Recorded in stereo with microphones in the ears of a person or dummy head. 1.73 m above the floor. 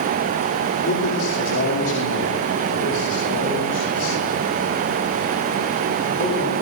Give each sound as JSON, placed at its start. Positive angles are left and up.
{"t": 0.8, "sound": "a man speaking", "side_deg": 60, "distance_m": 6.0}